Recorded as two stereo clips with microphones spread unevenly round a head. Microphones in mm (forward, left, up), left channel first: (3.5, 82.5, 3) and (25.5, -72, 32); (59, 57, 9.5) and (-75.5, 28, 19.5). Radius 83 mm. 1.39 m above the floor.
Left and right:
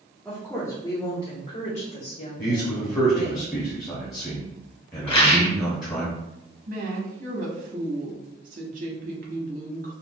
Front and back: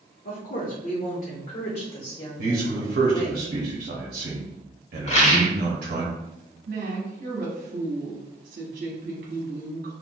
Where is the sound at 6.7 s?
125° right, 0.8 m.